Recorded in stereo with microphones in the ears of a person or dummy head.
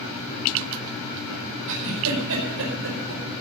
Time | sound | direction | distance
1.7 | a giggle | 75° right (ahead or behind) | 5 m